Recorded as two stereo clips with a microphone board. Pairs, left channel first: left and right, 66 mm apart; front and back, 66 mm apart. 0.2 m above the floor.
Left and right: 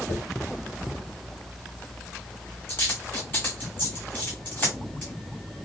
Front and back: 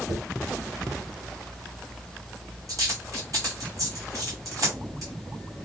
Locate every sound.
0.1 s a dropped coin: 145° left, 2.5 m